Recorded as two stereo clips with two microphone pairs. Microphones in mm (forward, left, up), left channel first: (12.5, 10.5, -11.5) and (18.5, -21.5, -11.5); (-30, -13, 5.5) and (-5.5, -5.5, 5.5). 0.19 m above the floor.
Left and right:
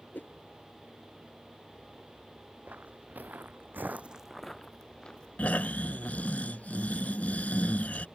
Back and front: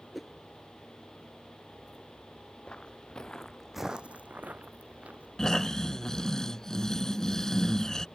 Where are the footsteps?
115° right; by 6.4 s 40° left.